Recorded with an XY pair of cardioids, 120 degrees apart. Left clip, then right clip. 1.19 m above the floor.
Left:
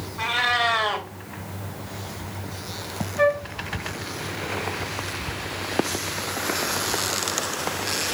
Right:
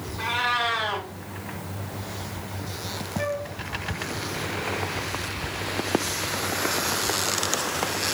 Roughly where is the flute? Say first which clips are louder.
Left 9 dB; ahead left.